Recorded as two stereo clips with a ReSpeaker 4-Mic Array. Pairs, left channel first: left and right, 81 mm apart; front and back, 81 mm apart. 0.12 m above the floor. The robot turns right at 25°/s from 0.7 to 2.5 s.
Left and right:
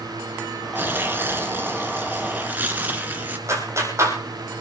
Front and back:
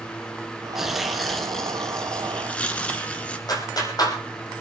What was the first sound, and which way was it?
Tearing paper, 100° right.